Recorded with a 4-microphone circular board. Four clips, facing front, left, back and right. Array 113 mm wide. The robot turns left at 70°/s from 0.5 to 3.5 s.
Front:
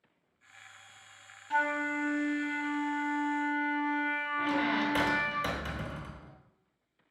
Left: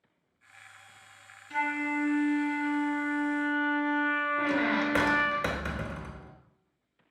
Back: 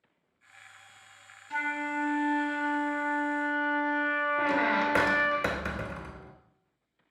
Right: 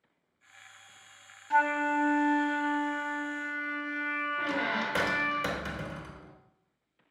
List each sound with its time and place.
1.5 s a flute: 65° right, 0.9 m; by 5.4 s 155° left, 0.9 m
4.4 s a squeak: 165° left, 0.8 m